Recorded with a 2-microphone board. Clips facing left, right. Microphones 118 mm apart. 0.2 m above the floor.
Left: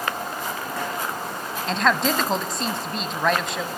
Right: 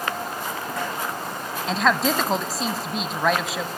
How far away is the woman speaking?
About 1.0 m.